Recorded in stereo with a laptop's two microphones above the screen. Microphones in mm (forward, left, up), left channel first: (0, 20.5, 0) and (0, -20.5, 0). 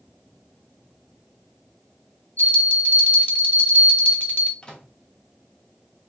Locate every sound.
2.4 s a bell: 50° left (ahead or behind), 1.3 m
4.6 s a microwave: 20° left (ahead or behind), 0.8 m